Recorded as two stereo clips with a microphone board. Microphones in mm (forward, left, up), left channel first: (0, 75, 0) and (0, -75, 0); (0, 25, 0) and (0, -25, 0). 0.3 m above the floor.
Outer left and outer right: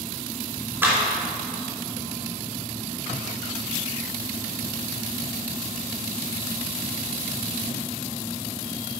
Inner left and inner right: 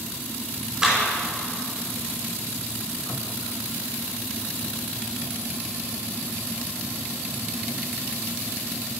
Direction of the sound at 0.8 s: 15° right (ahead or behind).